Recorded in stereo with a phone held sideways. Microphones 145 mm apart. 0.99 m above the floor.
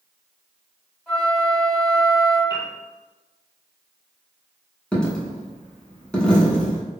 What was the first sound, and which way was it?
A flute, 5° right (ahead or behind).